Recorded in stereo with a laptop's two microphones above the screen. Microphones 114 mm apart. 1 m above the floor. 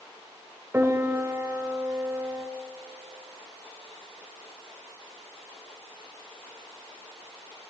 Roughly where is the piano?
Right.